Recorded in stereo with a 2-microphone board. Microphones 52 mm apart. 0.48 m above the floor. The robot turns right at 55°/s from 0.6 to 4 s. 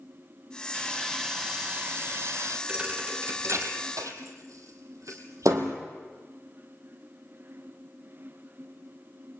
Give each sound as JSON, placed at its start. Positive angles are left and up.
{"t": 0.7, "sound": "sawing", "azimuth_deg": 150, "distance_m": 3.0}
{"t": 2.7, "sound": "a thud", "side_deg": -20, "distance_m": 3.0}